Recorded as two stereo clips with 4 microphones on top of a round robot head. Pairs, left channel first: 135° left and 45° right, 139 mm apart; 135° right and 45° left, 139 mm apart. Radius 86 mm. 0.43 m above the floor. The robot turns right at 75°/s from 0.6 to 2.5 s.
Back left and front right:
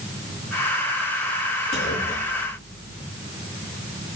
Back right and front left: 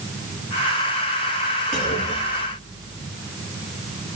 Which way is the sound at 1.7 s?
135° left.